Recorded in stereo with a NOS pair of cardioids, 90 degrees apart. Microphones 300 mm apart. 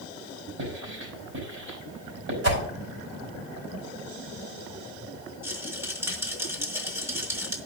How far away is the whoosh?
About 4.5 m.